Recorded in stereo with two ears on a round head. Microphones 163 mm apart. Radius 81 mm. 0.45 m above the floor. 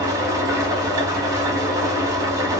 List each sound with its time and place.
0.0 s an engine running: 20° right (ahead or behind), 0.9 m